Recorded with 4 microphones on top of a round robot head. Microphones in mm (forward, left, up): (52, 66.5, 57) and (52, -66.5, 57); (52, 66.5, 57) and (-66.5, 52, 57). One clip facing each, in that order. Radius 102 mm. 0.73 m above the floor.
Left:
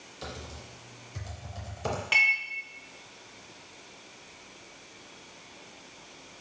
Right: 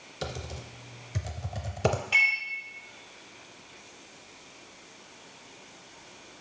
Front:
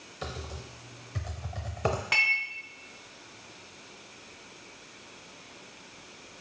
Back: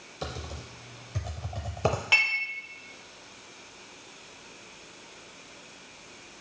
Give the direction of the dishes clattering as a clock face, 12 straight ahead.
8 o'clock.